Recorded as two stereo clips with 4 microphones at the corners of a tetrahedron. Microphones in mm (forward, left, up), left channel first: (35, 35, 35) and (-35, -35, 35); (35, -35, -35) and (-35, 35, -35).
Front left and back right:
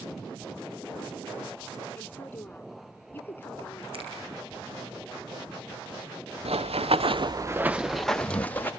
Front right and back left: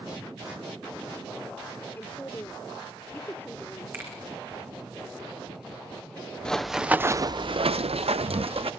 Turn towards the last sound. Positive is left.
turn(degrees=115)